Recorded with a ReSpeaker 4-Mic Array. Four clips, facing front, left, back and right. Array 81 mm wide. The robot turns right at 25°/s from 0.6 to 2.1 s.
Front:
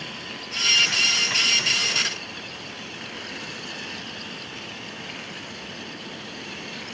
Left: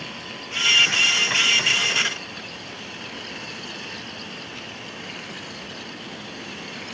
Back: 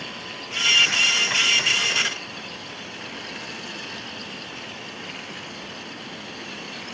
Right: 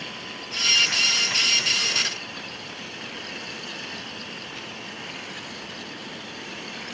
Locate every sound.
Only background noise.